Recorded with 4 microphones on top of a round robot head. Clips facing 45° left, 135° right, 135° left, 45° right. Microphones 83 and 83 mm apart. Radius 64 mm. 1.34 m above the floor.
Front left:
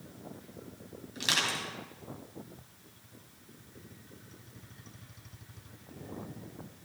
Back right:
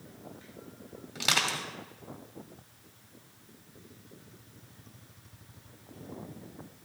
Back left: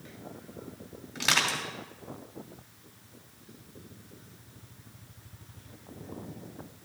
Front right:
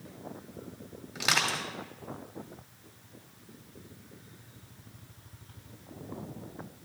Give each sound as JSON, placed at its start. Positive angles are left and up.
{"t": 1.1, "sound": "crushing", "azimuth_deg": -125, "distance_m": 2.0}